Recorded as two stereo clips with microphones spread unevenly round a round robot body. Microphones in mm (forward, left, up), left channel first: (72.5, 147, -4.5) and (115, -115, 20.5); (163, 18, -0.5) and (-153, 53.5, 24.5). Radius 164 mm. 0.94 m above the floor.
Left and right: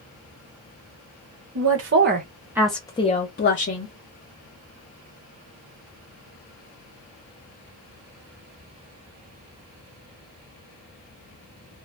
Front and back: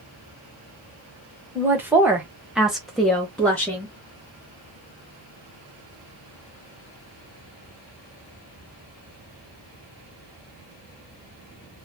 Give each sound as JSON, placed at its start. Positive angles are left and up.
{"t": 1.6, "sound": "a woman speaking", "azimuth_deg": -100, "distance_m": 0.9}